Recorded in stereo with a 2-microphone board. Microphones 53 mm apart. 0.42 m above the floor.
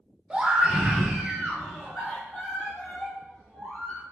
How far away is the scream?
About 0.9 m.